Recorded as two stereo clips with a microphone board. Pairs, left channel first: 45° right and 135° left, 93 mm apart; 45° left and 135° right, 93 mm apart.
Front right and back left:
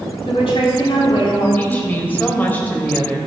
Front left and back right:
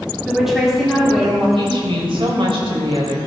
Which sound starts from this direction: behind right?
A woman speaking, at 1.6 s.